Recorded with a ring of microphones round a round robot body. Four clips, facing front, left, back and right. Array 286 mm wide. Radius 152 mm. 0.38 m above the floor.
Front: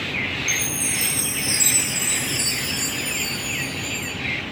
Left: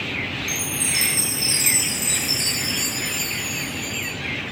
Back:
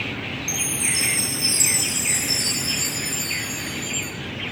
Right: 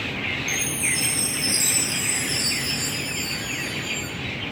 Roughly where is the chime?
Left.